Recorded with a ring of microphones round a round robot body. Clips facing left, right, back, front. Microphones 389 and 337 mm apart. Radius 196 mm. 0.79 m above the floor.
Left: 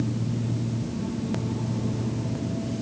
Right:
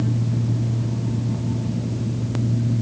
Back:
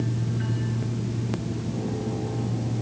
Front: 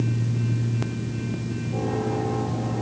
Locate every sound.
Only background noise.